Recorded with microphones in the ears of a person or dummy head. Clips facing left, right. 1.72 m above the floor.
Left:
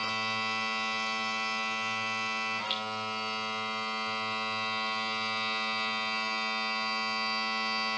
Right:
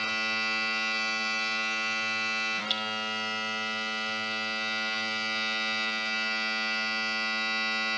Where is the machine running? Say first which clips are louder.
Even; 20° right (ahead or behind), 1.6 m.